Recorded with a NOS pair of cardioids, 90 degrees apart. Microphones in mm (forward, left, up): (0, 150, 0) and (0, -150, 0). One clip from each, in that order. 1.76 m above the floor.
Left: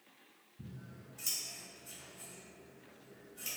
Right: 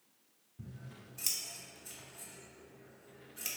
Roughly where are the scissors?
Ahead right.